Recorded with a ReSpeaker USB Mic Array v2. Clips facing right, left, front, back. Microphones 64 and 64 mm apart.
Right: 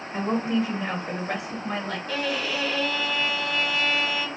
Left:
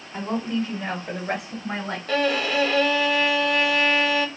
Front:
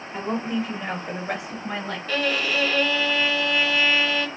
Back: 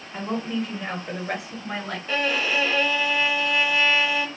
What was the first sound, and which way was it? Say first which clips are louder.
A woman speaking: right 1 dB, front 1 dB; 85° right.